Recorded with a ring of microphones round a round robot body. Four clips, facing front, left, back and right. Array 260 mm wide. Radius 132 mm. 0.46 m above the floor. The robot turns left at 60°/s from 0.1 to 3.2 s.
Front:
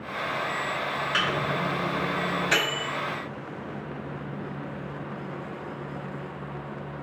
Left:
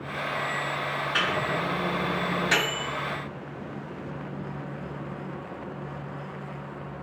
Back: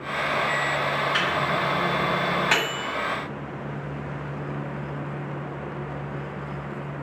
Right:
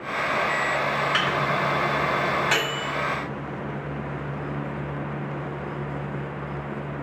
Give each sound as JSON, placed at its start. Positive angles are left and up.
{"t": 1.1, "sound": "a microwave", "azimuth_deg": -80, "distance_m": 1.1}